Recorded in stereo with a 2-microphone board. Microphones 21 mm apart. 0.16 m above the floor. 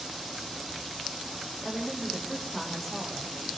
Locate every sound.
1.6 s a woman speaking: 15° left (ahead or behind), 9.5 m; by 3.5 s 10° left (ahead or behind), 8 m